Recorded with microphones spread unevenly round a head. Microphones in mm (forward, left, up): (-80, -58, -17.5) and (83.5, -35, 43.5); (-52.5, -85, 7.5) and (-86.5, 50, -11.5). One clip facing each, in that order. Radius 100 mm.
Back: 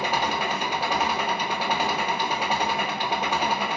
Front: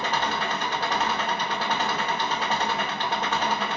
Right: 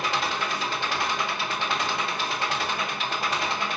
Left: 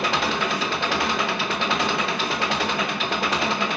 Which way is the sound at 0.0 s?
95° left.